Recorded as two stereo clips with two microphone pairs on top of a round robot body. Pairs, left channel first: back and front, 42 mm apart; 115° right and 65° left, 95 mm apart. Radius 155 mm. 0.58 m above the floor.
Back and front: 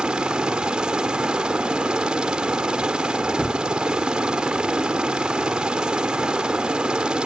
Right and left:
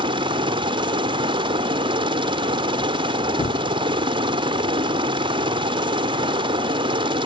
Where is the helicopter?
60° left.